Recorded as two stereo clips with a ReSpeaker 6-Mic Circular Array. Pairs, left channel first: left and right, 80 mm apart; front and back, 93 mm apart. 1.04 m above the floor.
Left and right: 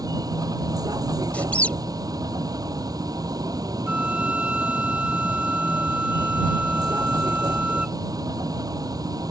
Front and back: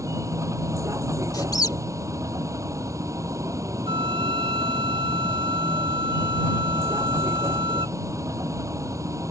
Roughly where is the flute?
Behind.